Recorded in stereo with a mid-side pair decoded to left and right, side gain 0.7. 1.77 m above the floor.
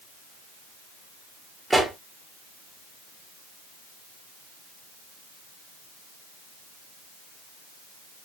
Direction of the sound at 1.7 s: 10° right.